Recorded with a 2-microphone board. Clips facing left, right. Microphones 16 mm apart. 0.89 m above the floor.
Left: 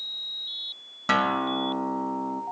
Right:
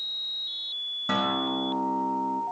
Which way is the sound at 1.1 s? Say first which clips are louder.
Left 4 dB; 60° left (ahead or behind).